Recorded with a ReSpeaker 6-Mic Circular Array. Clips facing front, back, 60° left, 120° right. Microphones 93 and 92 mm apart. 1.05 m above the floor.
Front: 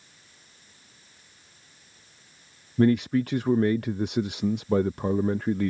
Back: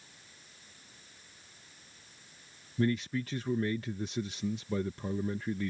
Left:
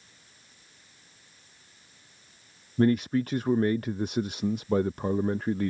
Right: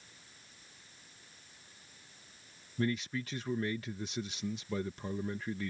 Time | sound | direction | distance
2.8 | a man speaking | 25° left | ?